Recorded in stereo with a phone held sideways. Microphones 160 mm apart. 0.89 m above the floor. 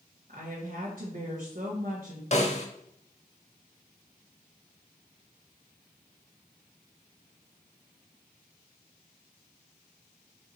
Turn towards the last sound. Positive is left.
turn(degrees=45)  # may be behind; listen again after turning